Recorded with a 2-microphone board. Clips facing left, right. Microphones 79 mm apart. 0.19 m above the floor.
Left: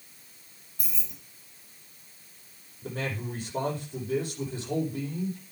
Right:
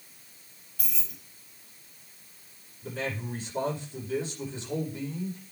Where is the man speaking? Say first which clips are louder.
Even; 55° left (ahead or behind), 7.5 m.